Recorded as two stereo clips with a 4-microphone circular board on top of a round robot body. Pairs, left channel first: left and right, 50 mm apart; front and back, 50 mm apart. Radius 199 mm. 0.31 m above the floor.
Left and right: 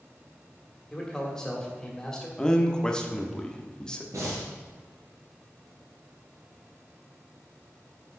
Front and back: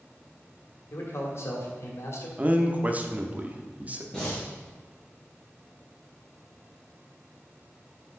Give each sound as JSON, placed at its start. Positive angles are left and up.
{"t": 0.9, "sound": "a man speaking", "azimuth_deg": 15, "distance_m": 2.5}
{"t": 2.4, "sound": "a man speaking", "azimuth_deg": 155, "distance_m": 1.3}
{"t": 4.1, "sound": "breathing", "azimuth_deg": -75, "distance_m": 3.5}